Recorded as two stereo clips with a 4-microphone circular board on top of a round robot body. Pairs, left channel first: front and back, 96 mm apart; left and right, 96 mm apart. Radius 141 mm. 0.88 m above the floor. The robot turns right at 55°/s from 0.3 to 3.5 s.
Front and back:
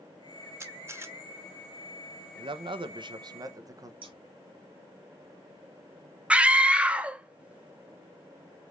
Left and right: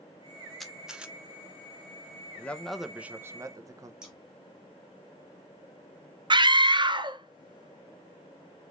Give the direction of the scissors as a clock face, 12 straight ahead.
6 o'clock.